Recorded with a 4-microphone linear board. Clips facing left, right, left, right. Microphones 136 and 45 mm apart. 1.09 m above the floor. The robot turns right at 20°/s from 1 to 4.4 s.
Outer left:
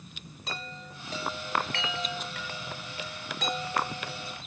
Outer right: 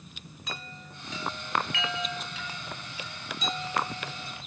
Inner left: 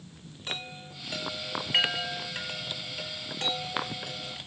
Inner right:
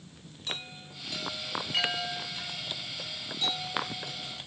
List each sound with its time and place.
0.5 s a chime: 35° left (ahead or behind), 6 m; by 4.4 s 80° left, 6 m